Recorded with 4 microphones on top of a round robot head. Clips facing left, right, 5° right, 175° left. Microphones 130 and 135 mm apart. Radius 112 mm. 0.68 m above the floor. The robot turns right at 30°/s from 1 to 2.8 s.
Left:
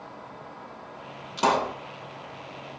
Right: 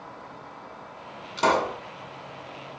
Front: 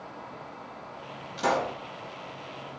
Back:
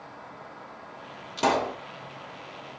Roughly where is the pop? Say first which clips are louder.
Right 1 dB, back 2 dB; behind.